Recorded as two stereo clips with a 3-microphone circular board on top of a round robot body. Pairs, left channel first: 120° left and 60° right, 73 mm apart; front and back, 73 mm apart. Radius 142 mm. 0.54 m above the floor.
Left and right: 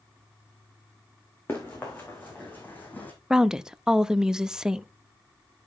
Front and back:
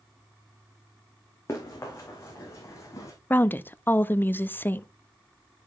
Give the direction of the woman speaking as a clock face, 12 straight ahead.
12 o'clock.